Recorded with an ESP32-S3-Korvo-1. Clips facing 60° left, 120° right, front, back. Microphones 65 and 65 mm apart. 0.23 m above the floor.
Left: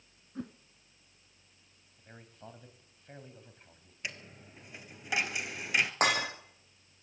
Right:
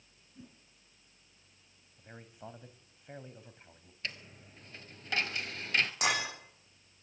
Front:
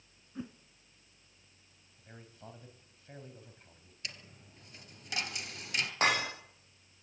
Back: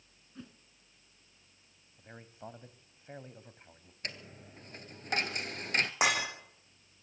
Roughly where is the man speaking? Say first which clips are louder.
Right 2 dB, back 4 dB; behind.